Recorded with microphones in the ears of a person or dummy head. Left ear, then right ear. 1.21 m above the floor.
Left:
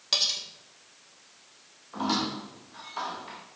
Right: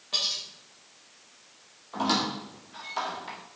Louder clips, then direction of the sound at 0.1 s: Left 2 dB; 75° left (ahead or behind).